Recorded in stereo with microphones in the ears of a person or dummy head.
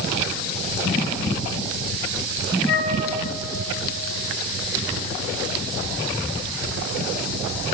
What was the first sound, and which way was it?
A flute, 70° left (ahead or behind).